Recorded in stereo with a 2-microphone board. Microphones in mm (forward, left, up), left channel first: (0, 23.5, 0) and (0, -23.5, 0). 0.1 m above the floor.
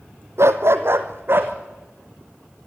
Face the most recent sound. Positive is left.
turn(degrees=-45)  # may be behind; listen again after turning